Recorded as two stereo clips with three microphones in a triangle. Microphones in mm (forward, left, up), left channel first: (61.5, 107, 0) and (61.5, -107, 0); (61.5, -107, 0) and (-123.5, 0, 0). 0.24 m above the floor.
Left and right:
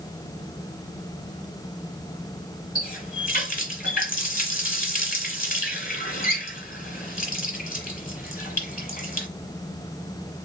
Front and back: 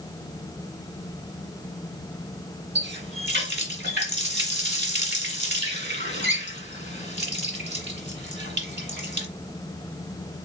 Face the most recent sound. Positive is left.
turn(degrees=130)